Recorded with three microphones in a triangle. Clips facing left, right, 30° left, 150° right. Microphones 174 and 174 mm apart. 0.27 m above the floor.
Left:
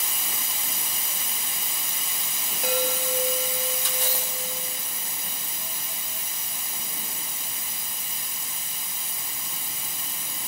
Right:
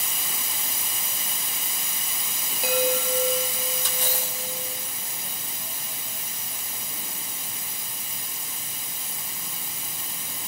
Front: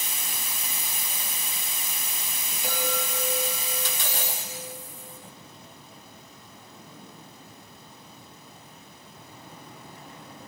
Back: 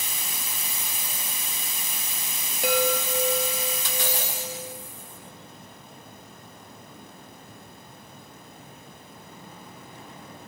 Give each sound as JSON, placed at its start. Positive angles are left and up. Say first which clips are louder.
{"t": 2.6, "sound": "a chime", "louder": "right 3 dB, back 7 dB", "azimuth_deg": -175, "distance_m": 2.0}